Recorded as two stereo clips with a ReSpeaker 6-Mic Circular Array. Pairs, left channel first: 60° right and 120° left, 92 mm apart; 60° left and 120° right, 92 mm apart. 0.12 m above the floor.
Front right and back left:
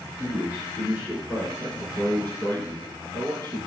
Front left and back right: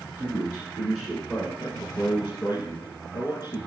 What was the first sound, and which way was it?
A man speaking, 105° left.